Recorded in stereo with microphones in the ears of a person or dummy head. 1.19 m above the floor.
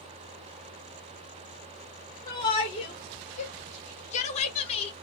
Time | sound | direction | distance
2.3 | a shout | 15° left (ahead or behind) | 0.8 m